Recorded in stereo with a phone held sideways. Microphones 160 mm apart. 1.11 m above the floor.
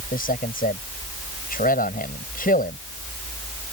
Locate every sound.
0.1 s a man speaking: 65° left (ahead or behind)